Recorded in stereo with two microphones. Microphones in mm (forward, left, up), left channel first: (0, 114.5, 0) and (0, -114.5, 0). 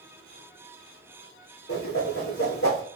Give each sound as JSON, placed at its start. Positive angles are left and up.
{"t": 1.7, "sound": "a whoosh", "side_deg": 75, "distance_m": 1.5}